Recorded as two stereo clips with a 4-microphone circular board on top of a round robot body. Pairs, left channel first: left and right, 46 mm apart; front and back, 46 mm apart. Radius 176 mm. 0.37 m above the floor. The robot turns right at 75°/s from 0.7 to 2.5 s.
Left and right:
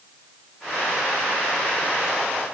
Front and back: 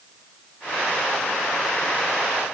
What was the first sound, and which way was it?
Only background noise.